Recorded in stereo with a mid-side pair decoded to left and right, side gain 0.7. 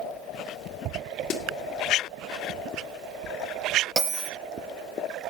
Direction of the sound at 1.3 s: 50° left.